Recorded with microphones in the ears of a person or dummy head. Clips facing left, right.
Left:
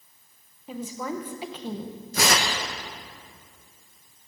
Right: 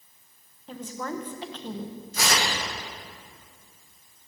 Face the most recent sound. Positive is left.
turn(degrees=55)  # may be behind; listen again after turning